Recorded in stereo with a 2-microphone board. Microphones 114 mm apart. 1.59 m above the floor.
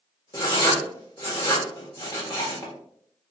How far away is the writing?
About 1.3 m.